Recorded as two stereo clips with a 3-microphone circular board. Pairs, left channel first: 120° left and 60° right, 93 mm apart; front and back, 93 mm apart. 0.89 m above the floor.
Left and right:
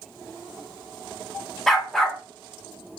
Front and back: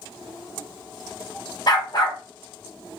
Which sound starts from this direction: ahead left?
A dog barking, at 1.7 s.